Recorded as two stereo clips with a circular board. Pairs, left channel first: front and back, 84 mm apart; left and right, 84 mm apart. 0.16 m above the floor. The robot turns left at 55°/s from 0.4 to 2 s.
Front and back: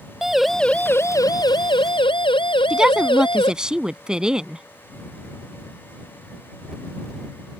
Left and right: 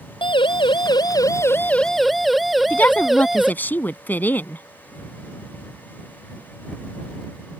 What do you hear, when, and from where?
0.2 s a siren: 95° left; by 3.5 s straight ahead
2.7 s a woman speaking: 115° left